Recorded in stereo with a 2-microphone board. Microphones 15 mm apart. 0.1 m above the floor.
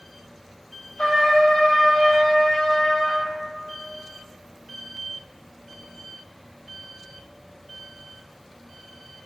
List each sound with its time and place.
1.0 s a trumpet: 50° left (ahead or behind), 1.2 m